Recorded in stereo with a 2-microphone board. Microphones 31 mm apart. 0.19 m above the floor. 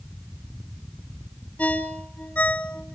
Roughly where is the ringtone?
Left.